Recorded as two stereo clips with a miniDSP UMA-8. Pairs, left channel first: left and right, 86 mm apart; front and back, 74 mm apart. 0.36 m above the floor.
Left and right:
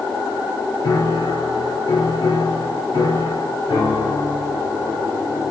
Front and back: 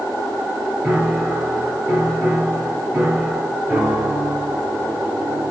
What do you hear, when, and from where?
0.8 s a piano: 115° left, 1.5 m